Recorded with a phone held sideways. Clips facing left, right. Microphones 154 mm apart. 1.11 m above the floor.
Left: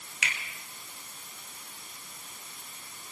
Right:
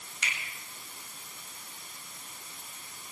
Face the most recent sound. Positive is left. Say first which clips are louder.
# left 2 dB
turn(degrees=85)